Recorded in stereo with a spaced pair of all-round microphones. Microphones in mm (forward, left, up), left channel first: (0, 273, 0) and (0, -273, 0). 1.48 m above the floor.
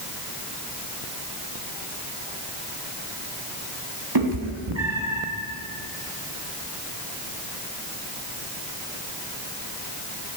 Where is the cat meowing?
45° right (ahead or behind), 1.3 m; by 5.2 s 55° right (ahead or behind), 1.3 m.